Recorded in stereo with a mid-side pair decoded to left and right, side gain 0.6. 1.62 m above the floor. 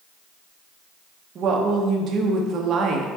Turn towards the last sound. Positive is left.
turn(degrees=-50)